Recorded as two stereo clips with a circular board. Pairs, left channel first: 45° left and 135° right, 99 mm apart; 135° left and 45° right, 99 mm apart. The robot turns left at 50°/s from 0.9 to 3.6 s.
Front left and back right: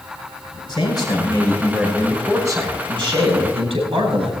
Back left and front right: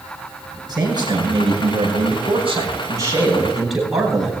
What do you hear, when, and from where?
0.7 s a man speaking: 5° left, 9.5 m; by 4.3 s 130° right, 9.5 m